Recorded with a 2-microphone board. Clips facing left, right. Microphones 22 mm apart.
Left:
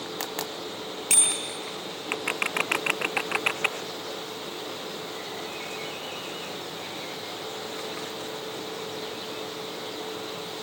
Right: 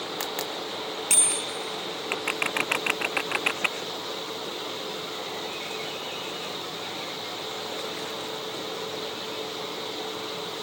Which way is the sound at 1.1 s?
15° left (ahead or behind).